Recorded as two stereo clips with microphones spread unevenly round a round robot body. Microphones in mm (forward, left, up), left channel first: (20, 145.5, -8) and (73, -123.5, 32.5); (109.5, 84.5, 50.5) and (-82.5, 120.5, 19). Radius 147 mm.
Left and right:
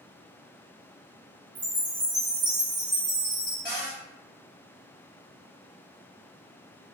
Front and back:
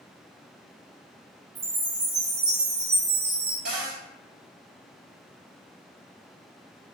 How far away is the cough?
I don't hear a cough.